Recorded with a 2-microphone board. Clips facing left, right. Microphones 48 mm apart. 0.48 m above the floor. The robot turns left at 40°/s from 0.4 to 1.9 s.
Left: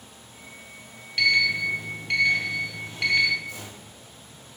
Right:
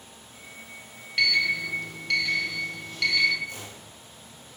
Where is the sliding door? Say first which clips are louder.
Left 2 dB; 10° right (ahead or behind), 2.5 m; by 3.4 s 15° left (ahead or behind), 2.5 m.